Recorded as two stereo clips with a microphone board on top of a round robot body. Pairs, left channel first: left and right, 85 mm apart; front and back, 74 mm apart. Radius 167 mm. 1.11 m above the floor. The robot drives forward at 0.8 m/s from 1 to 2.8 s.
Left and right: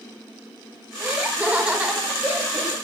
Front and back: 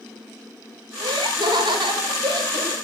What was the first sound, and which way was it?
Laughter, 170° right.